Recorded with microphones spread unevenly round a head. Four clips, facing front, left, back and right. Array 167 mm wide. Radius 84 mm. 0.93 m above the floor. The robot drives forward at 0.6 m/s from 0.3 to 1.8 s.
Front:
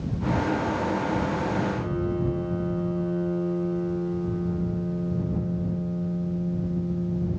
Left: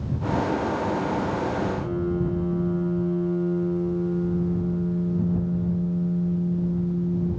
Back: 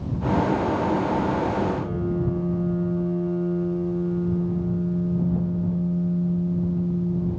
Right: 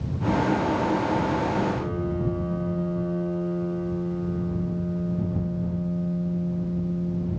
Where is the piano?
140° right, 5 m.